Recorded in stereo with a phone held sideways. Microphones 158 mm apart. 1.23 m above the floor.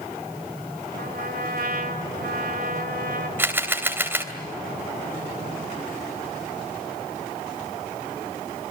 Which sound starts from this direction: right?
A trumpet, at 1.0 s.